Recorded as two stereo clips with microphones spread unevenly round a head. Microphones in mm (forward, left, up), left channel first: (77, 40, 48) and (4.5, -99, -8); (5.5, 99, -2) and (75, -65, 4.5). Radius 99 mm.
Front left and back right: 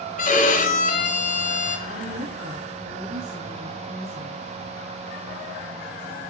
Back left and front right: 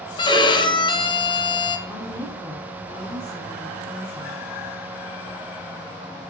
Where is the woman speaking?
165° right, 3.5 m.